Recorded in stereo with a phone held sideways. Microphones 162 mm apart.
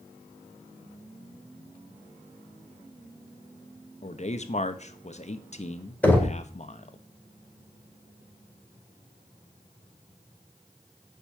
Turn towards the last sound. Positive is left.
turn(degrees=10)  # may be behind; listen again after turning